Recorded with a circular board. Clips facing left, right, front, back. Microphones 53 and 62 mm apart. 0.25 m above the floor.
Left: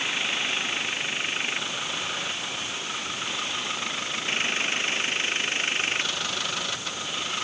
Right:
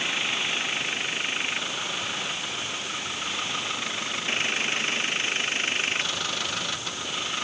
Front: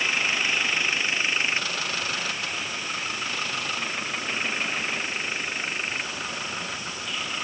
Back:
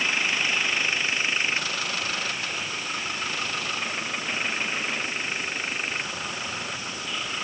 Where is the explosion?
I don't hear an explosion.